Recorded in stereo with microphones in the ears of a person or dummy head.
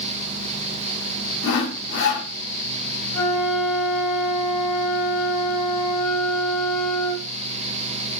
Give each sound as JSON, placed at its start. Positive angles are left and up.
{"t": 1.4, "sound": "sawing", "side_deg": 60, "distance_m": 0.9}
{"t": 3.1, "sound": "a flute", "side_deg": 75, "distance_m": 2.5}